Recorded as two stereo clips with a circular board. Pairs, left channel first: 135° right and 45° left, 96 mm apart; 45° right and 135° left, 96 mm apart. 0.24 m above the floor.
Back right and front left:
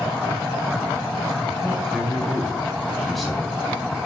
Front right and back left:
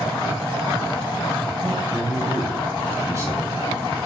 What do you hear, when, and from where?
1.6 s a man speaking: 140° left, 1.4 m